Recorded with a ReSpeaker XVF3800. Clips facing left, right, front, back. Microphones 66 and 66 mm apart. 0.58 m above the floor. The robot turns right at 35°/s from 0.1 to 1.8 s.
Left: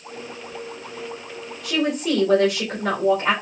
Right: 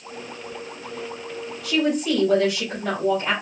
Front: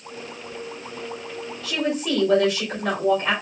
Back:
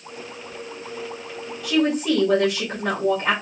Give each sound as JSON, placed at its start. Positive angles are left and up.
{"t": 1.6, "sound": "a woman speaking", "azimuth_deg": 105, "distance_m": 2.0}